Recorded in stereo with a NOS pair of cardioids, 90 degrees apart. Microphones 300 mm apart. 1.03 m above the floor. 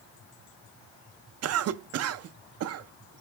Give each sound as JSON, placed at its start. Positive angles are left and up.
{"t": 1.4, "sound": "a cough", "azimuth_deg": -55, "distance_m": 0.6}